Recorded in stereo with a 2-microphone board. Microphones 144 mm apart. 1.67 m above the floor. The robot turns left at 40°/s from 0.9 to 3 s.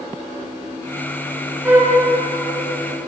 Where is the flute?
15° right (ahead or behind), 4.5 m; by 2.0 s 5° right (ahead or behind), 4.5 m.